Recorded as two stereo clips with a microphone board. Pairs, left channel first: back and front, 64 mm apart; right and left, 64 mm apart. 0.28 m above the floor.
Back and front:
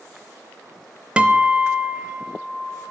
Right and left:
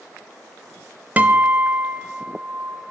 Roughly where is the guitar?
Ahead left.